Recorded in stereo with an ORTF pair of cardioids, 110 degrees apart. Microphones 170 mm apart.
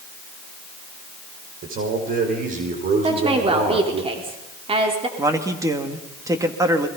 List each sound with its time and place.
1.6 s a man speaking: 55° right, 5.5 m; by 4.0 s 40° right, 3.5 m
3.0 s a woman speaking: 35° right, 4 m
5.2 s a man speaking: 20° right, 3 m